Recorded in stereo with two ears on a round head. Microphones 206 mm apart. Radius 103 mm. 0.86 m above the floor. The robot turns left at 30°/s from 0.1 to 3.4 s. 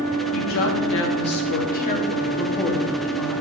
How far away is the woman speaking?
About 1.6 m.